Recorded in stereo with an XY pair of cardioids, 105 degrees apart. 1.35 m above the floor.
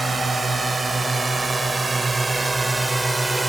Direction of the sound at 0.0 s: 30° right.